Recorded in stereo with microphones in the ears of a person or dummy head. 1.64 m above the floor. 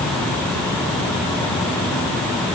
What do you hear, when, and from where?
Only background noise.